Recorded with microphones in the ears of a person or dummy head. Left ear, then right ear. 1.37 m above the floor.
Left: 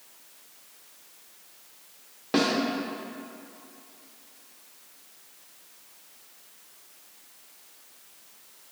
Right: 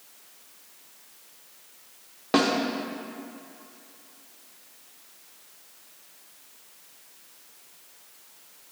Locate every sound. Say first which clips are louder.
2.3 s a snare drum: right 2 dB; 25° right (ahead or behind), 0.6 m